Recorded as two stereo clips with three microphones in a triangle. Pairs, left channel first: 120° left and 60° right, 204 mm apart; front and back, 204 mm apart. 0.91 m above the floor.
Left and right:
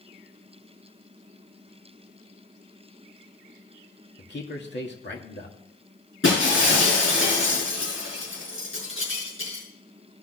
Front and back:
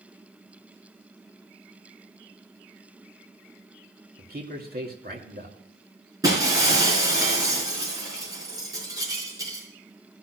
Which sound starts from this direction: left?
Breaking glass, at 6.2 s.